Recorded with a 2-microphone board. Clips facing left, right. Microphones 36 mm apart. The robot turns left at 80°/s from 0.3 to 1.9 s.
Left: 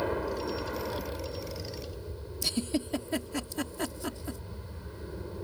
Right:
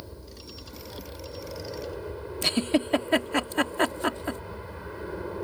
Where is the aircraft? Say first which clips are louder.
Left 14 dB; 85° left; by 5.5 s 45° right.